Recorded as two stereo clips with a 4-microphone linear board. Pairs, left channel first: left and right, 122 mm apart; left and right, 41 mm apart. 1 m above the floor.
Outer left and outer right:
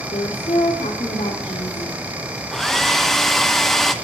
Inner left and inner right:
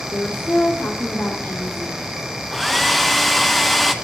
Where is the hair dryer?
Centre (ahead or behind), 0.9 m.